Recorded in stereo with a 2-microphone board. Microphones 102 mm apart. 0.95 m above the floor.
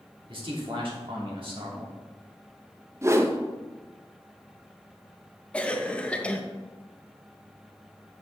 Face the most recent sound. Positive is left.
turn(degrees=10)  # may be behind; listen again after turning